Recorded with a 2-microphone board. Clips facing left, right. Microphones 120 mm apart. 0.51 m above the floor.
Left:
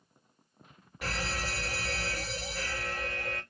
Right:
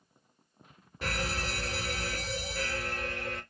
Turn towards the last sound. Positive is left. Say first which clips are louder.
# right 1 dB
turn(degrees=-30)  # may be behind; listen again after turning